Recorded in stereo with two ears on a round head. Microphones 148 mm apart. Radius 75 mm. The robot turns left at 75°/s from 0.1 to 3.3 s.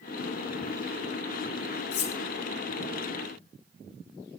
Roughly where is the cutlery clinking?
Left.